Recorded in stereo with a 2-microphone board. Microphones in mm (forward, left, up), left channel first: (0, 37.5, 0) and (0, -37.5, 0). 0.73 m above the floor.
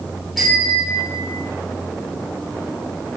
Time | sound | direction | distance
0.4 | a bicycle bell | centre (ahead or behind) | 9.5 m